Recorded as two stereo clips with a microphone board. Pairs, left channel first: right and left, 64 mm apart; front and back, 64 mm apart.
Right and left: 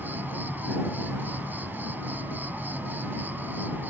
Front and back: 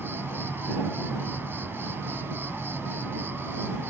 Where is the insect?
140° left.